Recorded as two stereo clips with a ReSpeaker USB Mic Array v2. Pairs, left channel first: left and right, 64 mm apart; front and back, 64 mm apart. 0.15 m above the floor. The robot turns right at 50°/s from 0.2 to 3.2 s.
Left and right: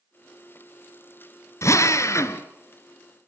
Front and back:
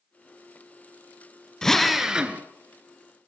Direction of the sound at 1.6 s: 80° left.